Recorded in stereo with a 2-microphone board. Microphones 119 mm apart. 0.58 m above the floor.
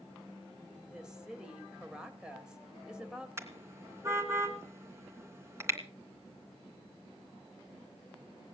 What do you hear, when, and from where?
0.8 s a woman speaking: 10° right (ahead or behind), 3 m
3.4 s a car horn: 25° right (ahead or behind), 2.5 m